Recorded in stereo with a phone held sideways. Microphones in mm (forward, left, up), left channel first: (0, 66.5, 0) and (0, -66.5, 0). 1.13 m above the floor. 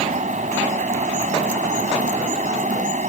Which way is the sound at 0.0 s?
70° right (ahead or behind).